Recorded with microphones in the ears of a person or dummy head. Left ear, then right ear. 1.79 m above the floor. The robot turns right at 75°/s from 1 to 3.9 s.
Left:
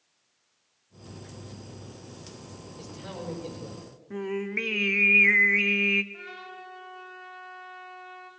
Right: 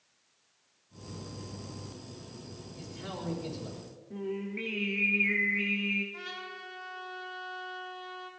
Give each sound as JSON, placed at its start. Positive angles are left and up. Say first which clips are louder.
{"t": 2.8, "sound": "a man speaking", "louder": "left 1 dB", "azimuth_deg": -175, "distance_m": 6.0}
{"t": 4.1, "sound": "singing", "louder": "left 6 dB", "side_deg": 55, "distance_m": 0.7}
{"t": 6.1, "sound": "a trumpet", "louder": "right 1 dB", "side_deg": -75, "distance_m": 6.0}